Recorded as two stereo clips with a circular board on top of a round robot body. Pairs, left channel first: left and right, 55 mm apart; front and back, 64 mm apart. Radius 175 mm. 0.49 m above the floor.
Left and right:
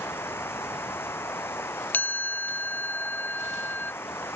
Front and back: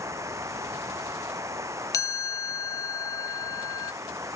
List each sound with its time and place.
0.0 s running water: 135° left
1.9 s a chime: 35° left